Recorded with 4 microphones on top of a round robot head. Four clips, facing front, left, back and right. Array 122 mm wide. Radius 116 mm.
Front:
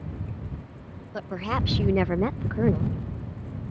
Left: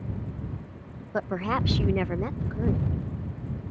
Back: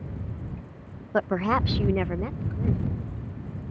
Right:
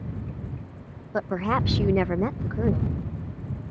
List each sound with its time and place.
1.1 s a woman speaking: 170° right; by 3.0 s 20° right